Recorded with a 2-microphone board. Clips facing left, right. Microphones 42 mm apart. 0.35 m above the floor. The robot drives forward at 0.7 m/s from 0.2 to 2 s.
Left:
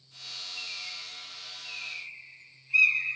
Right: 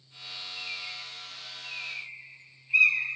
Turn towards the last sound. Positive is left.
turn(degrees=-20)  # may be behind; listen again after turning